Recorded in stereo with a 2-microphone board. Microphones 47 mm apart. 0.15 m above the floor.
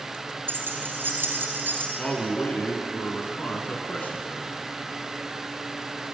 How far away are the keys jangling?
About 1.8 m.